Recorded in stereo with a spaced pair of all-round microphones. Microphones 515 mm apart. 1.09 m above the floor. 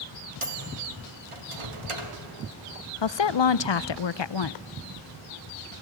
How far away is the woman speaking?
About 0.5 m.